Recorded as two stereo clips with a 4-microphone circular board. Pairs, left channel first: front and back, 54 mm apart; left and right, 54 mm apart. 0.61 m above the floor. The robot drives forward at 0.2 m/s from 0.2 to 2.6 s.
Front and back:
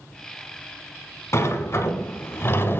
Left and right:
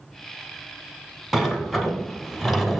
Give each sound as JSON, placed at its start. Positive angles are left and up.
{"t": 1.3, "sound": "a sliding door", "azimuth_deg": 0, "distance_m": 0.8}